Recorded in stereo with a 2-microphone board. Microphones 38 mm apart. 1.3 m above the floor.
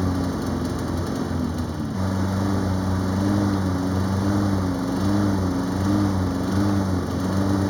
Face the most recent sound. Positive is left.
turn(degrees=5)  # may be behind; listen again after turning